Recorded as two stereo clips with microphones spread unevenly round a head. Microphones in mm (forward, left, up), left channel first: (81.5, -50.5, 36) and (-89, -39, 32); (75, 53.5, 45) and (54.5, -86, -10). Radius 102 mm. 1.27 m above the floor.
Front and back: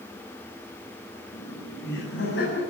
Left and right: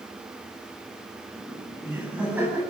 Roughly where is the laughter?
Ahead.